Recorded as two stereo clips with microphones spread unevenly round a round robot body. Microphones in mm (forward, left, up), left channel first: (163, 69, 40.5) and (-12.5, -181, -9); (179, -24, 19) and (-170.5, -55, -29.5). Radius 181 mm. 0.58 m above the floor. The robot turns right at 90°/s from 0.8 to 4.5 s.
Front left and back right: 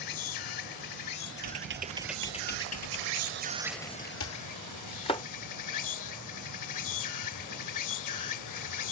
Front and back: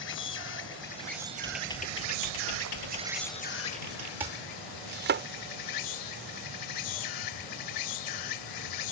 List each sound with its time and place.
0.0 s an insect: 60° left; by 8.9 s 35° left
1.4 s typing on a keyboard: 100° right; by 4.1 s 140° left
4.2 s chopping: 105° left; by 5.2 s 135° left